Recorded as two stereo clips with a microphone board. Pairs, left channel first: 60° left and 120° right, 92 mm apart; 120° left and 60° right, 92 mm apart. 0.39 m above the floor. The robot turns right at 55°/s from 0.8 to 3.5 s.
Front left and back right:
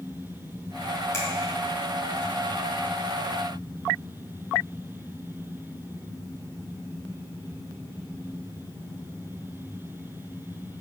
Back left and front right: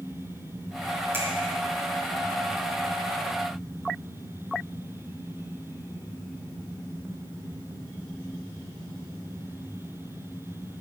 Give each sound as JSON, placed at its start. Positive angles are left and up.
{"t": 1.1, "sound": "a finger snap", "azimuth_deg": 0, "distance_m": 1.8}